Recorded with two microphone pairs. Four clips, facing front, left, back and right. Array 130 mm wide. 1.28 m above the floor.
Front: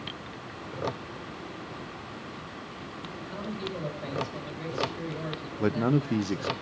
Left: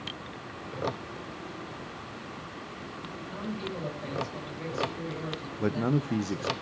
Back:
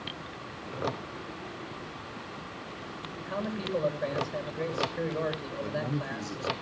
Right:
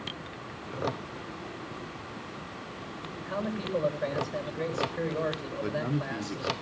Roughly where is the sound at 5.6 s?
Ahead left.